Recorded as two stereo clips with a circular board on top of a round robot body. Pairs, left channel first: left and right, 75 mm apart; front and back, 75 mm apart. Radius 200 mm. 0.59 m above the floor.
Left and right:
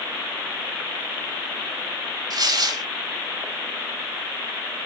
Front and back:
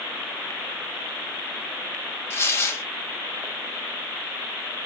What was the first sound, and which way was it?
Tearing paper, 60° right.